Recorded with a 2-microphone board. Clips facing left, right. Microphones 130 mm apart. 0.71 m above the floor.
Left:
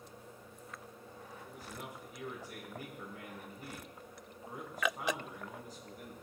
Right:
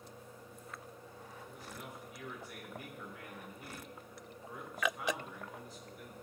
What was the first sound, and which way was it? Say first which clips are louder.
A man speaking: left 2 dB; 40° left (ahead or behind).